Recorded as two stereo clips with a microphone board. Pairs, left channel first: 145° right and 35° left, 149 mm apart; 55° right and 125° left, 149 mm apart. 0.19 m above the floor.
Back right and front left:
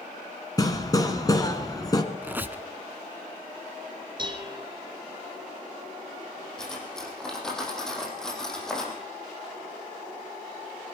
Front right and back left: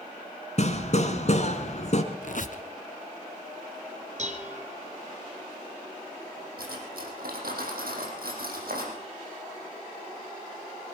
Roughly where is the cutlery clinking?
Behind left.